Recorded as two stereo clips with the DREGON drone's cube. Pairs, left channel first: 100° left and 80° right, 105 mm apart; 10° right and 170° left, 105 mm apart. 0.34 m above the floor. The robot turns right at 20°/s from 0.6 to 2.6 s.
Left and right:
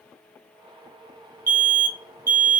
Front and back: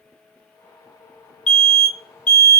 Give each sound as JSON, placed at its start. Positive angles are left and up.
{"t": 1.5, "sound": "an alarm", "azimuth_deg": -85, "distance_m": 1.2}